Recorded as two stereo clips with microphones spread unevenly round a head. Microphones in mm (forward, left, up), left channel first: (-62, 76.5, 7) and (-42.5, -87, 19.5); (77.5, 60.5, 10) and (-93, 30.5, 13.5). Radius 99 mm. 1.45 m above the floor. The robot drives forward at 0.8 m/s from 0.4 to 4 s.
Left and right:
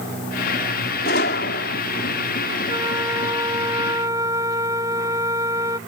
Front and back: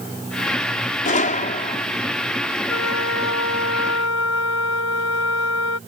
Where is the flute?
10° right.